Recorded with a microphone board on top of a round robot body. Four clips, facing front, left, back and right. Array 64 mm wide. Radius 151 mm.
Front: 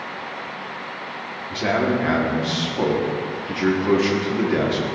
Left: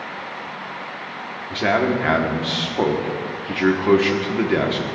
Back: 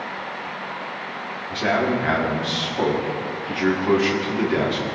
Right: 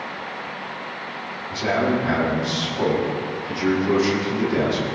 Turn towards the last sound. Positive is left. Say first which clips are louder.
# left 2 dB, even
turn(degrees=95)